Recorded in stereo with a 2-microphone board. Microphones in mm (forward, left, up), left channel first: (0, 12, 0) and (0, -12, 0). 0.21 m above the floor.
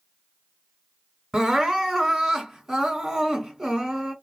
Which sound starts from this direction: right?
Crying, at 1.3 s.